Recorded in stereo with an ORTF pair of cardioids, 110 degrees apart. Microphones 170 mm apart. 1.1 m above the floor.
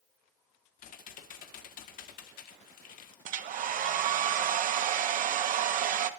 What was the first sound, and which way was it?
Typing on a keyboard, 65° left.